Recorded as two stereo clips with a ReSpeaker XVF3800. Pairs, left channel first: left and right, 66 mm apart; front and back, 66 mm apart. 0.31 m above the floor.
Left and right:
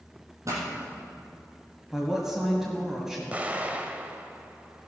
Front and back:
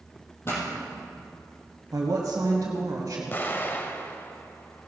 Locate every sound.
0.5 s a pop: 50° right, 4 m
1.9 s a woman speaking: 175° right, 1.6 m
3.3 s an explosion: 40° right, 0.9 m